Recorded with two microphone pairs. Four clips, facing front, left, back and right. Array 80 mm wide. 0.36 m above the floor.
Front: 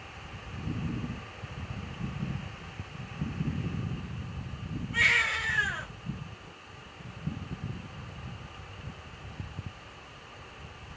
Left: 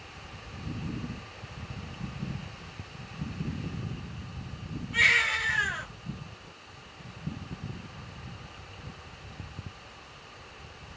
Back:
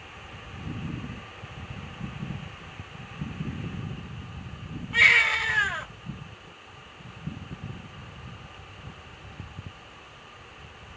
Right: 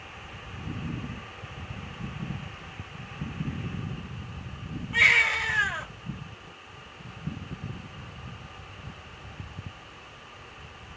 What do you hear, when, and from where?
4.9 s a baby crying: 165° right, 1.3 m